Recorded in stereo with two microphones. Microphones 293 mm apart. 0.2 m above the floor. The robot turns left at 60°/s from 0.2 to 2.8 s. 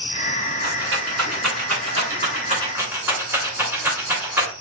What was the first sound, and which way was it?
A rattle, 35° right (ahead or behind).